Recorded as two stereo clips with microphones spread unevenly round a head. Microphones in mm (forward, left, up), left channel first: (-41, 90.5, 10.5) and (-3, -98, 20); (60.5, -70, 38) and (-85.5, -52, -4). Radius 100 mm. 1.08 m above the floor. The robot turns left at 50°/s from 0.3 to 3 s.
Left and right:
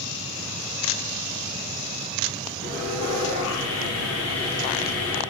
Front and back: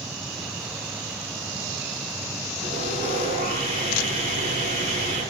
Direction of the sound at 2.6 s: 130° left.